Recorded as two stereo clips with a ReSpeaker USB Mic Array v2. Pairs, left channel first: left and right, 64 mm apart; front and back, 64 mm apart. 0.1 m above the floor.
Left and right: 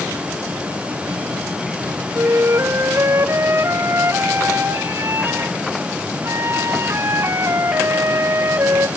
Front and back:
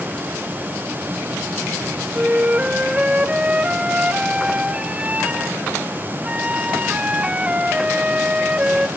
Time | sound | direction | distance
2.1 | a flute | 115° right | 0.8 m